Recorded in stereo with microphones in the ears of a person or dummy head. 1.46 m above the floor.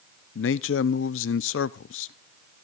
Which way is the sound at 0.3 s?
70° left (ahead or behind).